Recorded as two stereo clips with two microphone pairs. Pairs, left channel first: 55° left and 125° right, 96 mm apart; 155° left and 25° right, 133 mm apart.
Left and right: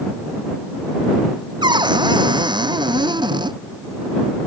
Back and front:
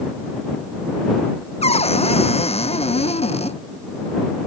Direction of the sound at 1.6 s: 160° right.